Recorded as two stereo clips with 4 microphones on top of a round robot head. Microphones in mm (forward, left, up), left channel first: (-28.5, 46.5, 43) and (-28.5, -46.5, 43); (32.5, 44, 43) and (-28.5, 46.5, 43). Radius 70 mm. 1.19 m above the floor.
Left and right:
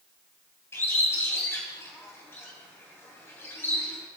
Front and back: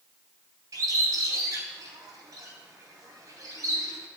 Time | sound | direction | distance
0.7 | a bird | 155° left | 3 m